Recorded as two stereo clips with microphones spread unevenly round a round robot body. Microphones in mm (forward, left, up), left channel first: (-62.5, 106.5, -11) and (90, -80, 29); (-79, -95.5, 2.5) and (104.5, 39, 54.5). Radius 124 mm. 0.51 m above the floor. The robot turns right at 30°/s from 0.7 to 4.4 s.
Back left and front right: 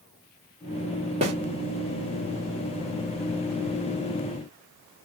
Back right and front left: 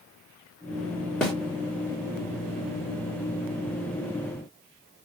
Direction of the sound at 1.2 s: 95° right.